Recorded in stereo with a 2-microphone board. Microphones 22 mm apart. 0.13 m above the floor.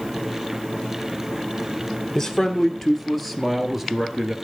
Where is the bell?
No bell in this recording.